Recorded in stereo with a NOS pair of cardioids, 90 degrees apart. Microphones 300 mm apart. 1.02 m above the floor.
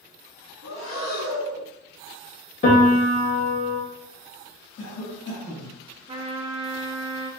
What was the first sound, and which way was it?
Breathing, 50° left.